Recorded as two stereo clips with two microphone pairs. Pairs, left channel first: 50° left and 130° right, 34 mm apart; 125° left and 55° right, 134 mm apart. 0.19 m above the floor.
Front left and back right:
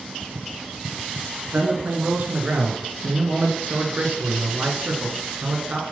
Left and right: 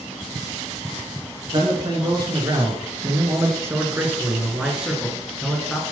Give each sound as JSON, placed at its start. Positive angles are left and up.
{"t": 1.5, "sound": "a man speaking", "azimuth_deg": -100, "distance_m": 3.0}